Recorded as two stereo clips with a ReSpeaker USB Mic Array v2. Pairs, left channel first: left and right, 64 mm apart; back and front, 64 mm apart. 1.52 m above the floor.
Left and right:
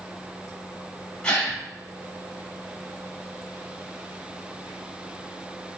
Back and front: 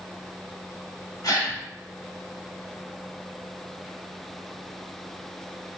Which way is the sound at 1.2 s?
160° left.